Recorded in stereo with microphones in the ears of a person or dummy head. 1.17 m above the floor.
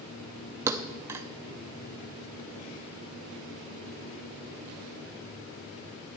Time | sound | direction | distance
0.7 | a thud | 15° right (ahead or behind) | 0.7 m